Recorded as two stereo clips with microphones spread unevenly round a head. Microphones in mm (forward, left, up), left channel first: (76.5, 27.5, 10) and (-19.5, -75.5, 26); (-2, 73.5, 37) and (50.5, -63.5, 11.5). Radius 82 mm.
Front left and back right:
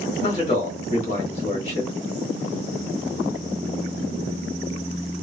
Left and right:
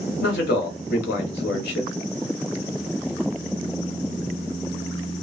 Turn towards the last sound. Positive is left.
turn(degrees=100)